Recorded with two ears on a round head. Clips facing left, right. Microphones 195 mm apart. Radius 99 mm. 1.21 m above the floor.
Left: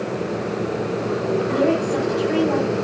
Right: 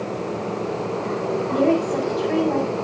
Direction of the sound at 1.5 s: Centre (ahead or behind).